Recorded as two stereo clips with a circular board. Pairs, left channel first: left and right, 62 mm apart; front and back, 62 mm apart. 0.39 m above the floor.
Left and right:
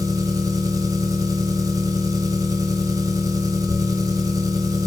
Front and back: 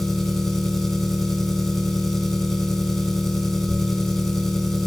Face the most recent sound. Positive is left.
turn(degrees=-85)